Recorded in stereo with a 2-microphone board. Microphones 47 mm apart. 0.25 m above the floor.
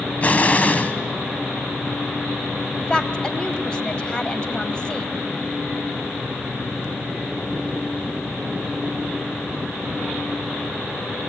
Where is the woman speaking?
20° left (ahead or behind), 1.1 m.